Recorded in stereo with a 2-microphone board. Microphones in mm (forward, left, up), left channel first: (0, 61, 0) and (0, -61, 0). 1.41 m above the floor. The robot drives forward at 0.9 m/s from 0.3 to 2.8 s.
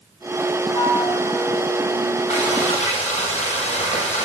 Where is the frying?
65° left (ahead or behind), 9.5 m; by 4.2 s 70° left (ahead or behind), 9 m.